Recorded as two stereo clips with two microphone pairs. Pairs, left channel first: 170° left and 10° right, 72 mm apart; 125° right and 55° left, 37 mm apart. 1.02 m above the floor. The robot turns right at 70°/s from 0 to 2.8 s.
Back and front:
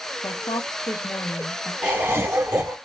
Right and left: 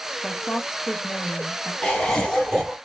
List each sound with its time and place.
0.2 s a woman speaking: 145° left, 1.0 m; by 1.7 s 110° right, 1.0 m
1.8 s laughter: 75° right, 1.1 m; by 2.8 s 10° right, 1.1 m